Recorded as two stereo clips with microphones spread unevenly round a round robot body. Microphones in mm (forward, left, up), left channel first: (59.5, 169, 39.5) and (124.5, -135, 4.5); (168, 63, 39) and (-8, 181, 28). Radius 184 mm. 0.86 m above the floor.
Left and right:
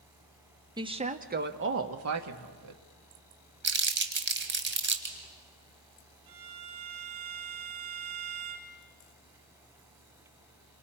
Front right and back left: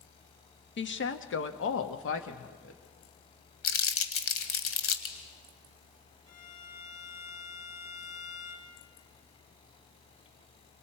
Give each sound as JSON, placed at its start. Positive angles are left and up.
{"t": 0.8, "sound": "a woman speaking", "azimuth_deg": -5, "distance_m": 1.5}
{"t": 3.6, "sound": "crumpling", "azimuth_deg": -20, "distance_m": 1.8}
{"t": 6.3, "sound": "a violin", "azimuth_deg": -80, "distance_m": 1.9}